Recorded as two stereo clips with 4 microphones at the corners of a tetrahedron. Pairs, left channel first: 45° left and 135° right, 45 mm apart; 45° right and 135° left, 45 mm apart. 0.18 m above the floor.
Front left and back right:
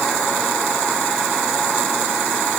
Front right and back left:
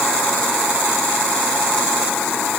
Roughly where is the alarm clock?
I don't hear an alarm clock.